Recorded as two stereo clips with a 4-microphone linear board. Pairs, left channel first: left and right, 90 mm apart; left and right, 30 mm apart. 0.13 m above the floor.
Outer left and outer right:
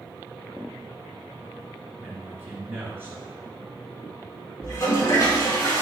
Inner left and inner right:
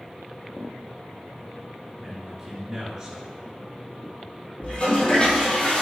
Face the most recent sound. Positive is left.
turn(degrees=30)  # may be behind; listen again after turning